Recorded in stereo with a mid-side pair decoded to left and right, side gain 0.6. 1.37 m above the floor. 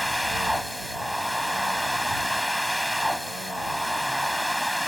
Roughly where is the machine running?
Ahead.